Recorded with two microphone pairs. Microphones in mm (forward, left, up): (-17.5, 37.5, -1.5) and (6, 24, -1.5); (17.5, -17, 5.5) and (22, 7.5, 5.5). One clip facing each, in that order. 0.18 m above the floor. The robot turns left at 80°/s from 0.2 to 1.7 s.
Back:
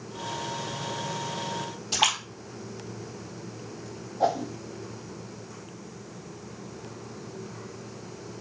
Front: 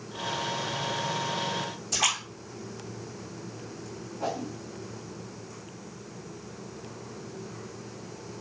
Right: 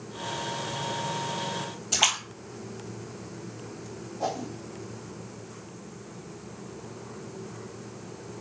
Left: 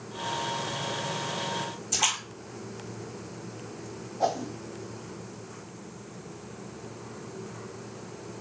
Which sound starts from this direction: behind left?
A whoosh, at 4.2 s.